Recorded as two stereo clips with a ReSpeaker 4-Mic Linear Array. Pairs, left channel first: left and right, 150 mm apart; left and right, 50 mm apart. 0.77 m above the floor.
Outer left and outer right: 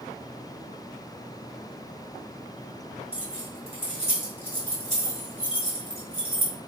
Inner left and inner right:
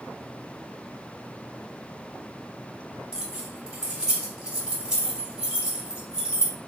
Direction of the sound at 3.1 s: 15° right (ahead or behind).